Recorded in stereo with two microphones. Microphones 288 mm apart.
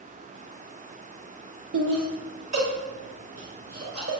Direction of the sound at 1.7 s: 80° right.